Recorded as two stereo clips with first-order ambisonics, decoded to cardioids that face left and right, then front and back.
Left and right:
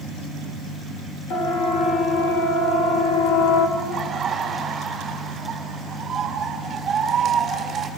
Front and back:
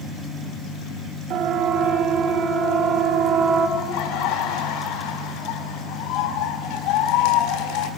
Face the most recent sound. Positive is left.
turn(degrees=-20)